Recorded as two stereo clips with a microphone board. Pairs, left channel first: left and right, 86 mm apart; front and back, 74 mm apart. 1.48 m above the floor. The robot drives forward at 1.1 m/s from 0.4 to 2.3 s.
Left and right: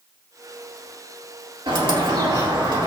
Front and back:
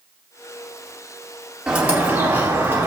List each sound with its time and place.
1.7 s a bird: 100° right, 2 m; by 2.9 s 120° right, 2.5 m